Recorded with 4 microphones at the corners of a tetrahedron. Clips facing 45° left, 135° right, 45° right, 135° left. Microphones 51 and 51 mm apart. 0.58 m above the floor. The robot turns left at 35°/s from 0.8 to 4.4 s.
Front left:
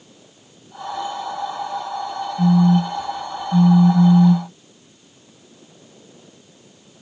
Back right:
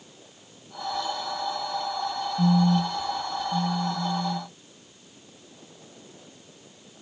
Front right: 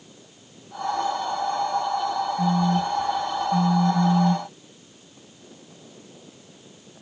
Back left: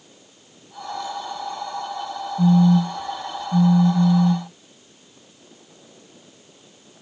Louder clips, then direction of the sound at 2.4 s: Front left 6 dB, back left 8 dB; 145° left.